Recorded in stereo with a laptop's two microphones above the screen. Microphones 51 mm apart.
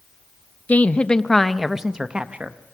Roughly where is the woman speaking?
Left.